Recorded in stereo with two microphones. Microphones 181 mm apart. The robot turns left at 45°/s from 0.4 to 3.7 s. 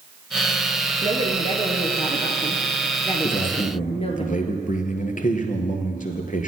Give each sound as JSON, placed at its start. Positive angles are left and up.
{"t": 1.0, "sound": "a woman speaking", "azimuth_deg": -115, "distance_m": 1.7}
{"t": 3.2, "sound": "a man speaking", "side_deg": 45, "distance_m": 1.6}